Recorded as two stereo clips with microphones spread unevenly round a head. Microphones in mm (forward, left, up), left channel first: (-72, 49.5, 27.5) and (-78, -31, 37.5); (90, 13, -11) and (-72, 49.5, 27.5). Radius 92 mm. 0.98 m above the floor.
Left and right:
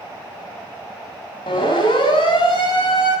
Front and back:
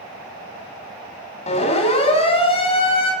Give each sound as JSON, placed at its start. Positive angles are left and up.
{"t": 1.5, "sound": "a siren", "azimuth_deg": 40, "distance_m": 9.5}